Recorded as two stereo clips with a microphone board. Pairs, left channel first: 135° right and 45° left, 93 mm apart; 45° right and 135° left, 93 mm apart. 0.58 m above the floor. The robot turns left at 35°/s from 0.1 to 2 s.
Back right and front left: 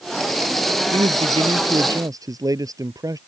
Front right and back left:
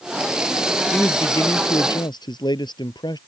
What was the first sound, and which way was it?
A man speaking, 30° left.